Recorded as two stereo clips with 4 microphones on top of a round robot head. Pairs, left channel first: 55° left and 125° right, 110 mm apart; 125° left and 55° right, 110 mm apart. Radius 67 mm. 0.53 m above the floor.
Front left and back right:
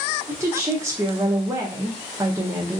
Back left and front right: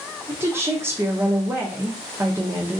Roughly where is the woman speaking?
Right.